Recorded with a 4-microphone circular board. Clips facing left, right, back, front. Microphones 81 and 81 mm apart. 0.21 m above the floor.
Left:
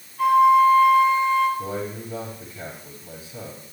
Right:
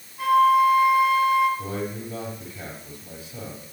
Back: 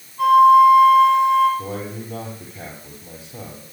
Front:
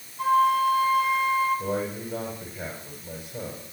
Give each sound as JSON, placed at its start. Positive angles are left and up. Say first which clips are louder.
{"t": 0.2, "sound": "a flute", "louder": "left 2 dB, back 10 dB", "azimuth_deg": -170, "distance_m": 3.5}
{"t": 1.6, "sound": "a man speaking", "louder": "left 1 dB, front 1 dB", "azimuth_deg": -175, "distance_m": 6.5}